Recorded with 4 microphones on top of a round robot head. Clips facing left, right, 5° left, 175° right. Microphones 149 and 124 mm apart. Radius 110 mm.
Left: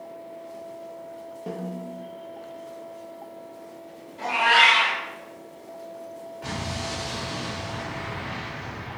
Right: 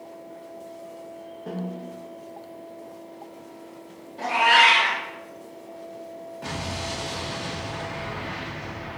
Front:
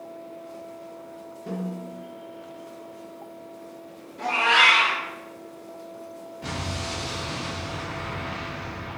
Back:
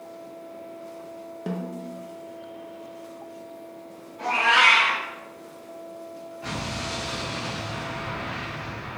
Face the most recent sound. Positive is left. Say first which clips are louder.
# even, even
turn(degrees=-30)